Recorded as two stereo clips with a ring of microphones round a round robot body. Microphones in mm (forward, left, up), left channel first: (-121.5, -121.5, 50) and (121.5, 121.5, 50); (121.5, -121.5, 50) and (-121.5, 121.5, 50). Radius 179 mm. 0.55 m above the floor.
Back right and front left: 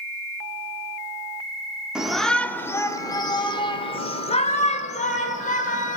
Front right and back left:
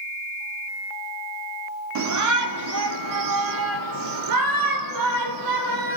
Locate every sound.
1.9 s a shout: 130° left, 1.2 m; by 6.0 s 160° left, 3 m